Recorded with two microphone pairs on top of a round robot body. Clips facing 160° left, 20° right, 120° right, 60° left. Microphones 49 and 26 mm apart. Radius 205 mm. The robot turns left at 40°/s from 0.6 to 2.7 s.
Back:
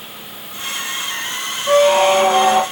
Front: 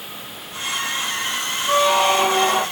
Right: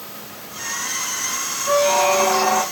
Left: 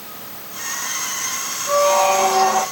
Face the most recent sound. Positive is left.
turn(degrees=155)